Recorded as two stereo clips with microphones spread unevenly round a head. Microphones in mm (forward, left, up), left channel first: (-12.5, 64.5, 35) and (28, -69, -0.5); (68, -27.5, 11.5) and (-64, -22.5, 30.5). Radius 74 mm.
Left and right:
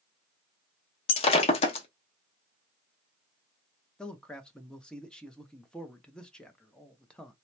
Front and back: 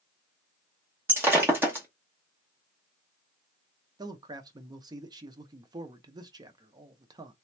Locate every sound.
1.1 s breaking glass: 115° left, 0.7 m
4.0 s a man speaking: 145° right, 0.6 m